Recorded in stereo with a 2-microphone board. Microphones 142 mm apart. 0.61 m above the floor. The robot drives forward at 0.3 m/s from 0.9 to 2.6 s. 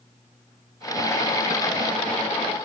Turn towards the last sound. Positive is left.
No sound to turn to.